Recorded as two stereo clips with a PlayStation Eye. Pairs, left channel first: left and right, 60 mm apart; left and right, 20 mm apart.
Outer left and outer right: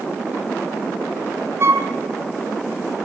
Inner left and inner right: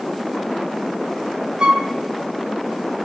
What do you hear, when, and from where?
1.6 s a flute: 45° right (ahead or behind), 3 m